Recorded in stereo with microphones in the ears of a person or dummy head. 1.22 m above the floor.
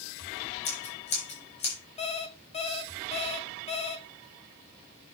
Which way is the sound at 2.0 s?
30° left (ahead or behind).